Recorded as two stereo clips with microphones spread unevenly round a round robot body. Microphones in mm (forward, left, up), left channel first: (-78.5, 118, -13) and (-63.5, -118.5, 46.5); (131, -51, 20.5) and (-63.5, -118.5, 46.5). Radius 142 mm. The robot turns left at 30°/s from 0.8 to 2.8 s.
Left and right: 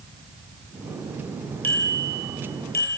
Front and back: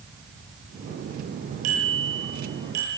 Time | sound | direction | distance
1.6 | a bicycle bell | 175° left | 10 m